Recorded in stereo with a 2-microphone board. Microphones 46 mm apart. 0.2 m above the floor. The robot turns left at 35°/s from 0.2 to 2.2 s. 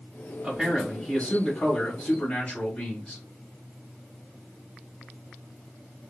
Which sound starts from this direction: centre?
A man speaking, at 0.4 s.